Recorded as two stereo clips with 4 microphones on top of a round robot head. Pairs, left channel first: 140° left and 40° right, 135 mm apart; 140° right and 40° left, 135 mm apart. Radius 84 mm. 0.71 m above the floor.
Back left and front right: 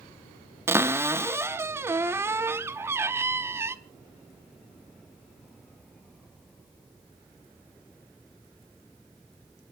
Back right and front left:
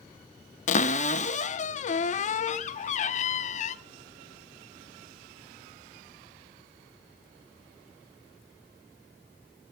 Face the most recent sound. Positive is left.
turn(degrees=-110)